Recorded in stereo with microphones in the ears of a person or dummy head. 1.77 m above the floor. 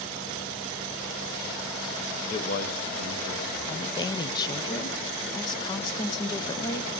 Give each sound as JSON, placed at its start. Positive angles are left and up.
{"t": 2.3, "sound": "a man speaking", "side_deg": 25, "distance_m": 0.7}
{"t": 3.7, "sound": "a woman speaking", "side_deg": 25, "distance_m": 0.7}